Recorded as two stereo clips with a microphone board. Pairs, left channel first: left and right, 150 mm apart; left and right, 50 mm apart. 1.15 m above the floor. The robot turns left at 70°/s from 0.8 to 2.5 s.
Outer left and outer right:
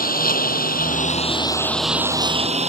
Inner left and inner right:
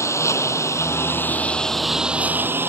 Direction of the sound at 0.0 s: 75° left.